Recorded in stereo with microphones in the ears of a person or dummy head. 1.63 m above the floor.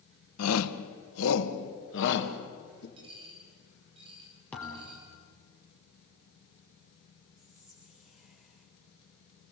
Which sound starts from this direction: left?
A shout, at 0.4 s.